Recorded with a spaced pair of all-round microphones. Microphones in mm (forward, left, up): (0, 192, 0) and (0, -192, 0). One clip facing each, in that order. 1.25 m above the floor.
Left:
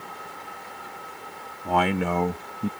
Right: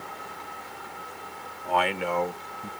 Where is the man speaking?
60° left (ahead or behind); by 2.7 s 75° left (ahead or behind).